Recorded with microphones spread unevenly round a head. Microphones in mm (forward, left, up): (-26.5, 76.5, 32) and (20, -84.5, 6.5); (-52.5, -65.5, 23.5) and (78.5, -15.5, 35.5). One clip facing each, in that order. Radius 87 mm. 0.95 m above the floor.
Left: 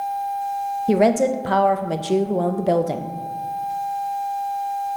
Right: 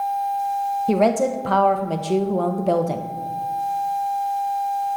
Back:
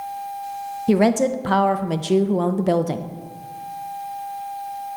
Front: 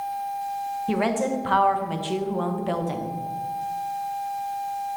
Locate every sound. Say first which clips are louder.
0.9 s a woman speaking: left 2 dB, back 7 dB; 170° right, 0.5 m